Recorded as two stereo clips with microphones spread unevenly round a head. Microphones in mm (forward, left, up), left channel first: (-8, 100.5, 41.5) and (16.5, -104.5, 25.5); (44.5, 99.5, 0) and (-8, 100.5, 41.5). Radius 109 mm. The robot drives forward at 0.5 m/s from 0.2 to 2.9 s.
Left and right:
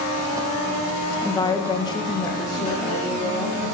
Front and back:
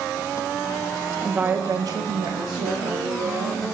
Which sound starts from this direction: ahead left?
A woman speaking, at 1.2 s.